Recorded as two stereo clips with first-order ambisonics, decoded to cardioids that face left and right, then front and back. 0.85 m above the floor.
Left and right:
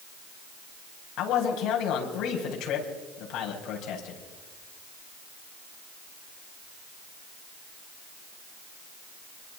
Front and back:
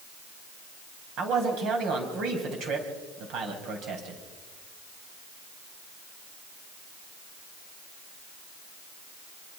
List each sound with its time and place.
1.2 s a man speaking: 135° left, 4.5 m